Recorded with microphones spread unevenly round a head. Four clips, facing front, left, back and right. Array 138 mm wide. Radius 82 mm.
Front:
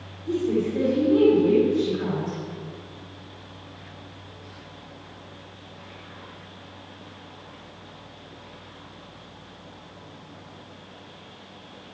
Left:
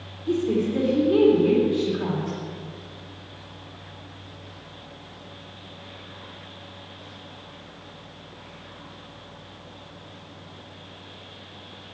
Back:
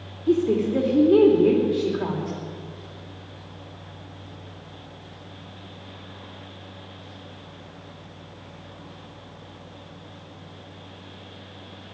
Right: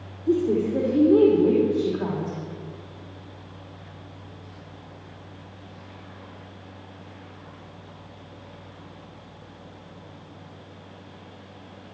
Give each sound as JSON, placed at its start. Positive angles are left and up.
{"t": 0.3, "sound": "a woman speaking", "azimuth_deg": -150, "distance_m": 3.5}